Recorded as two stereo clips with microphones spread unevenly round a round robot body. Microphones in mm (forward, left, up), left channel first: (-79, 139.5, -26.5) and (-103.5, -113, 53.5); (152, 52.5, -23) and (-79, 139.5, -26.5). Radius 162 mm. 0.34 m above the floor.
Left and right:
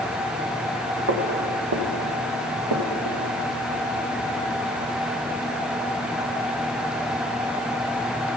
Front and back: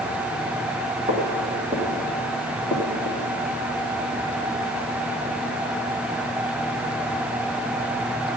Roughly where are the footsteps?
Behind right.